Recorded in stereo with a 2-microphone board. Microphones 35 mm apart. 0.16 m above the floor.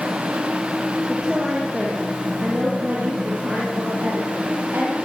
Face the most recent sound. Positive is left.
turn(degrees=-70)  # may be behind; listen again after turning